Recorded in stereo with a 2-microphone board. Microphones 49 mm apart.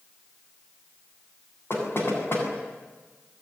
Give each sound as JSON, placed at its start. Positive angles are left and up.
{"t": 1.7, "sound": "knocking", "side_deg": 50, "distance_m": 8.0}